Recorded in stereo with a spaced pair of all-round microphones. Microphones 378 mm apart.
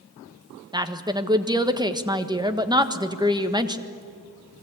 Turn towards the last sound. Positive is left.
turn(degrees=-10)  # may be behind; listen again after turning